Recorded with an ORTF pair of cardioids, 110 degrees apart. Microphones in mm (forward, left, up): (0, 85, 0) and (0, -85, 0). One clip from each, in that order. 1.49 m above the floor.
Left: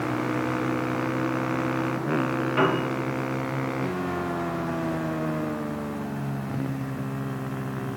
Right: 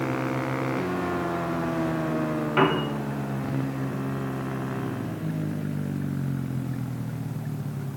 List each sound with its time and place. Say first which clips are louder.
2.6 s a piano: right 1 dB; 30° right, 1.3 m